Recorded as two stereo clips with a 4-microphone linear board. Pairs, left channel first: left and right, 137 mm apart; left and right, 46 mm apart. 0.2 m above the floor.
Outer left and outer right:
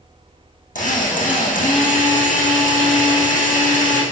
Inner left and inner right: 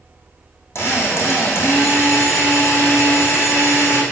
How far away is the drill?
About 4.5 m.